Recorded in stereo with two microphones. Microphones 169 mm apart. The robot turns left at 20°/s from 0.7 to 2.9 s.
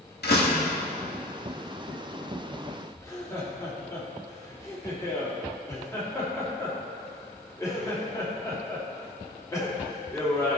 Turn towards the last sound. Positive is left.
turn(degrees=20)  # may be behind; listen again after turning